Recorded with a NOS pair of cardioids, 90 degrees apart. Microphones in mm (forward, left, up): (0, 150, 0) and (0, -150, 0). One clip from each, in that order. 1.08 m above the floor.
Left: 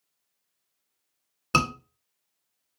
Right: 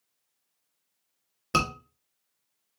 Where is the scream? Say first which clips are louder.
Left 2 dB; 15° left, 2.5 m.